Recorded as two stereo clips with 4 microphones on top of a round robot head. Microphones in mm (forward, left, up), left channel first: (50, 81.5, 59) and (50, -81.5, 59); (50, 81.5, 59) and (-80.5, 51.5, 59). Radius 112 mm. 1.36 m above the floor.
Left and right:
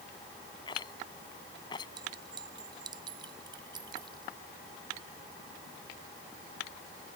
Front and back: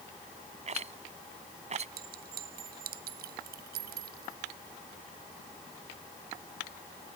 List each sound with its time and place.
0.7 s a rattle: 160° left
2.0 s a clink: 160° right